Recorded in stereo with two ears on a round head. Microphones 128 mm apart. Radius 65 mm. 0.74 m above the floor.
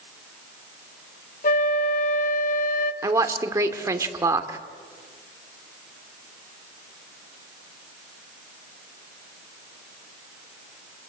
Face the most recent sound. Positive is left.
turn(degrees=-20)  # may be behind; listen again after turning